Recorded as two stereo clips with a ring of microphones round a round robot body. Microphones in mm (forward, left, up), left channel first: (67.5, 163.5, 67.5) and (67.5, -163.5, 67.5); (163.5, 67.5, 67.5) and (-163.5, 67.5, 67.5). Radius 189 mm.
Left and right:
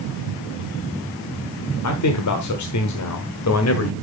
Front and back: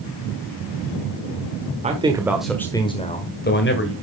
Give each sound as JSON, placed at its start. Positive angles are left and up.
{"t": 1.8, "sound": "a man speaking", "azimuth_deg": 115, "distance_m": 1.5}